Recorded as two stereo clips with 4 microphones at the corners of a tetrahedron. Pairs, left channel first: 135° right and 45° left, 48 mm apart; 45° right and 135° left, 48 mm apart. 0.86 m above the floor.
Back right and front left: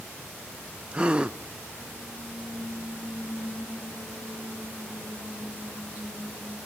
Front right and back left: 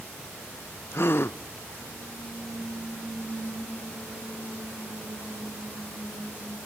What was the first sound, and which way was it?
A gasp, 20° right.